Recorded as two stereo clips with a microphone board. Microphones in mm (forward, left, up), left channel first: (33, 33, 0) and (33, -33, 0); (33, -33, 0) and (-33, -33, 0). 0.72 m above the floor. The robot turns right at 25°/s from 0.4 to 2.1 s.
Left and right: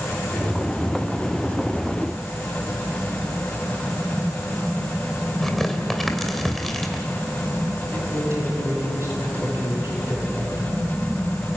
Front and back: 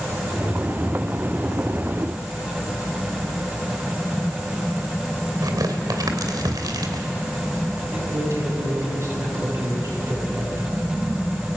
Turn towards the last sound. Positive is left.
turn(degrees=-135)